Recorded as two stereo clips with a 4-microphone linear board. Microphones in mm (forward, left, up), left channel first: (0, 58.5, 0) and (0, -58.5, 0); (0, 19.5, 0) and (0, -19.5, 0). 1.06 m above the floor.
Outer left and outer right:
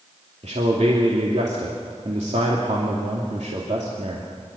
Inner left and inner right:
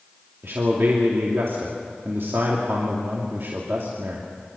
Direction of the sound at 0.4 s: 70° right (ahead or behind).